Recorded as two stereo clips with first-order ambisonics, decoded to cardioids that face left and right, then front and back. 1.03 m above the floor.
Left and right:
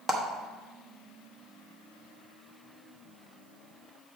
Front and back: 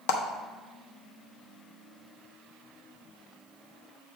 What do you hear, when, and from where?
0.1 s a clap: 10° right, 0.8 m